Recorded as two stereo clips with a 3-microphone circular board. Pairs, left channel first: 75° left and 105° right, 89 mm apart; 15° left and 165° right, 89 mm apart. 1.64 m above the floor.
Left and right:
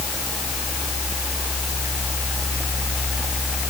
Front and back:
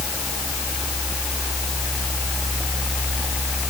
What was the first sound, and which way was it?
Only background noise.